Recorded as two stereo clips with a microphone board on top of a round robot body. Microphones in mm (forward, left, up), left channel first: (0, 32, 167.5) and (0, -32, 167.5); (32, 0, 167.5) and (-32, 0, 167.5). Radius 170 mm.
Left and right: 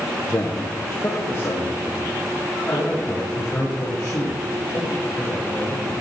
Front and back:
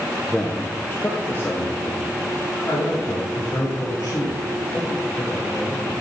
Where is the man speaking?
70° left, 1.2 m; by 6.0 s 40° left, 9 m.